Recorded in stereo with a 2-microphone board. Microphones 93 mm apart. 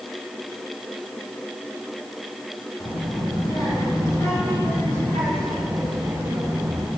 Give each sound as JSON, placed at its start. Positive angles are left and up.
{"t": 2.8, "sound": "a child speaking", "side_deg": 55, "distance_m": 4.5}